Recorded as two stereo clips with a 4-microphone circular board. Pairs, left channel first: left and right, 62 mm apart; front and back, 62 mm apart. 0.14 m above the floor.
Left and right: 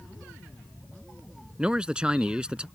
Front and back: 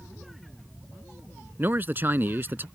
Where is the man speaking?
155° right.